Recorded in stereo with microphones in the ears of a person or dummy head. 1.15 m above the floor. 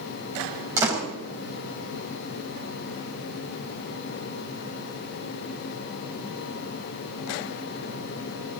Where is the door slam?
20° right (ahead or behind), 4.5 m.